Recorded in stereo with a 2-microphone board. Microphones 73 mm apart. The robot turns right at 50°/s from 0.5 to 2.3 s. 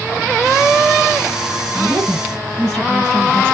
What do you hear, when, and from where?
1.8 s a woman speaking: 5° right (ahead or behind), 2 m; by 3.5 s 10° left (ahead or behind), 2 m